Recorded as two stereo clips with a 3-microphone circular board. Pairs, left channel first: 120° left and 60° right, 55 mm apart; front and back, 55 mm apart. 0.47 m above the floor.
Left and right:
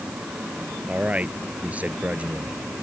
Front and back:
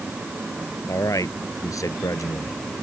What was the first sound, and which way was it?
A man speaking, 5° left.